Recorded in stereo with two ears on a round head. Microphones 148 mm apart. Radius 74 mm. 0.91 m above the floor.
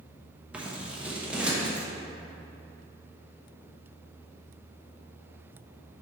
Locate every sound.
0.5 s scissors: 5° right (ahead or behind), 0.9 m